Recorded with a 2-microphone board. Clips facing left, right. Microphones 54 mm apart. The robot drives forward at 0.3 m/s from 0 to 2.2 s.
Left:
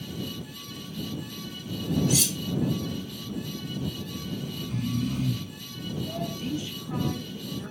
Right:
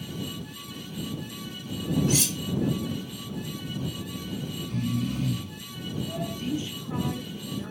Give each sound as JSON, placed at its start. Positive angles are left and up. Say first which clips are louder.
{"t": 2.1, "sound": "cutlery clinking", "louder": "even", "side_deg": -45, "distance_m": 0.9}
{"t": 4.1, "sound": "snoring", "louder": "even", "side_deg": 5, "distance_m": 1.4}
{"t": 6.4, "sound": "a woman speaking", "louder": "right 1 dB", "side_deg": -30, "distance_m": 1.1}